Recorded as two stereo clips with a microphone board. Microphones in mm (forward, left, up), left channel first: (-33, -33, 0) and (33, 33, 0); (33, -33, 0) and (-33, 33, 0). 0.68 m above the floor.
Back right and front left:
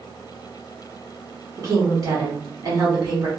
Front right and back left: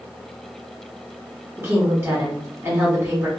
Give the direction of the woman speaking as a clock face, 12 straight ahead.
10 o'clock.